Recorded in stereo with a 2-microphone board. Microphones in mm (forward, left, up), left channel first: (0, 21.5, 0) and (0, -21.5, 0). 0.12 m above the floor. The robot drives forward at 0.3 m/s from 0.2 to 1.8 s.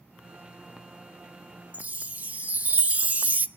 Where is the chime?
30° right (ahead or behind), 0.7 m.